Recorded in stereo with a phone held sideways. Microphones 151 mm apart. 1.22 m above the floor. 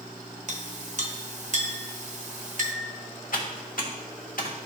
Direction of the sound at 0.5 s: 55° right (ahead or behind).